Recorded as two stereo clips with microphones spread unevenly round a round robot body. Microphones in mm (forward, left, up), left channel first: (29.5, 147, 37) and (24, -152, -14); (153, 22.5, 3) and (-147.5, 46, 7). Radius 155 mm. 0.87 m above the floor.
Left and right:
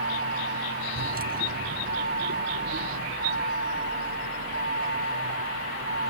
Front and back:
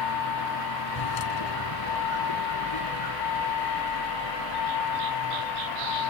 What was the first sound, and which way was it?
A vehicle, 30° right.